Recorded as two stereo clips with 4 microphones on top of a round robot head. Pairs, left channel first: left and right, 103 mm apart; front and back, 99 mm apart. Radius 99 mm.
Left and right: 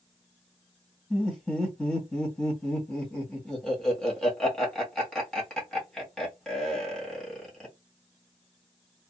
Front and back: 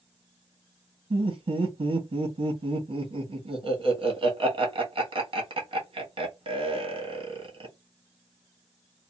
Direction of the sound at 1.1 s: 175° left.